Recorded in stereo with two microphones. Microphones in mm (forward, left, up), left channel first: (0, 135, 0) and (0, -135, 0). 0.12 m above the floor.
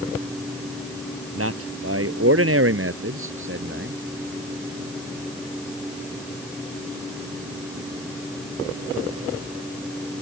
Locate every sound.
1.4 s a man speaking: 55° right (ahead or behind); by 4.0 s 45° right (ahead or behind)